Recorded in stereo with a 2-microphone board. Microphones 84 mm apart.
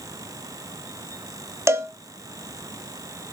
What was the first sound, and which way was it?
A cowbell, 30° right (ahead or behind).